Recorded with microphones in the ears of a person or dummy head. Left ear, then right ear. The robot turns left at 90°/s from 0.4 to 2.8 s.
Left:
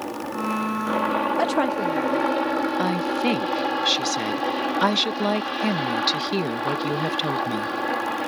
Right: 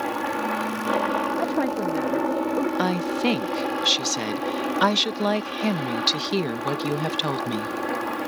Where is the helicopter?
120° right; by 8.3 s 25° left.